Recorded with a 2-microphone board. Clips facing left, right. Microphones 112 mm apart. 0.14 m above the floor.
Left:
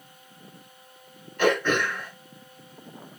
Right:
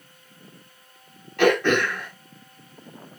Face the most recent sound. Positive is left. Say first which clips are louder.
# right 4 dB
turn(degrees=-80)